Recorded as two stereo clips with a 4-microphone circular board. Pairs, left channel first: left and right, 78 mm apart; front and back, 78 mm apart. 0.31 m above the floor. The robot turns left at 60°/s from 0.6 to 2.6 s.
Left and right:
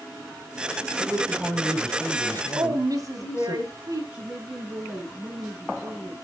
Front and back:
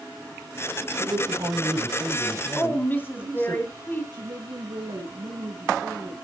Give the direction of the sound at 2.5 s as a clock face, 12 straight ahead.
2 o'clock.